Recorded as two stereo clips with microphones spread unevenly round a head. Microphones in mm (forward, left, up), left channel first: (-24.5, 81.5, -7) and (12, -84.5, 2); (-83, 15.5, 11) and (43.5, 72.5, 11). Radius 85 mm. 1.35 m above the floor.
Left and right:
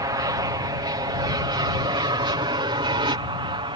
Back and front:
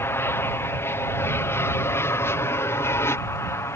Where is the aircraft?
110° right; by 3.8 s 105° right.